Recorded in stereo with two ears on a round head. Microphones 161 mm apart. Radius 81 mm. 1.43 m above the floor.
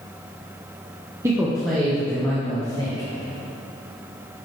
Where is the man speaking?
15° right (ahead or behind), 0.9 m; by 3.1 s 15° left (ahead or behind), 3.5 m.